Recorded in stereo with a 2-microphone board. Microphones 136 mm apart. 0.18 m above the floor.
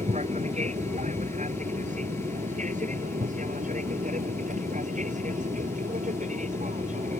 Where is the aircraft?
55° right (ahead or behind); by 7.2 s 65° right (ahead or behind).